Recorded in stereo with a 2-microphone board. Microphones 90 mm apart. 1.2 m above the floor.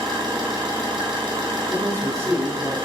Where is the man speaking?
35° right (ahead or behind), 3.5 m.